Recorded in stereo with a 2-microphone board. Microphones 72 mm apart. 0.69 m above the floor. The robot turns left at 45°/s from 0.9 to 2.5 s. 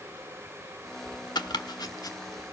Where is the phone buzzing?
I don't hear a phone buzzing.